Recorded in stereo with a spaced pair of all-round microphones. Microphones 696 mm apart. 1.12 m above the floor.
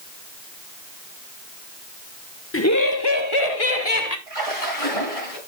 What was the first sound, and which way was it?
Laughter, 20° left (ahead or behind).